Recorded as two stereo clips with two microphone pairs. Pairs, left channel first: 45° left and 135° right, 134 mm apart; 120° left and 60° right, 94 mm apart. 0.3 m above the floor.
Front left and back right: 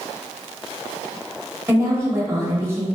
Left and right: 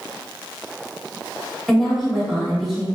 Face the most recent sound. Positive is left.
turn(degrees=-165)